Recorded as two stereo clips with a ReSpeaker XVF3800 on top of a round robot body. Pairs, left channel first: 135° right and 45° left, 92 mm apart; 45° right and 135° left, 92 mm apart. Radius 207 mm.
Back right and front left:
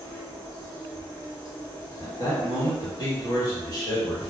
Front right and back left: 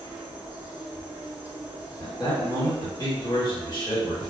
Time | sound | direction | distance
0.0 | an insect | 155° right | 1.8 m
2.0 | a man speaking | 85° right | 1.8 m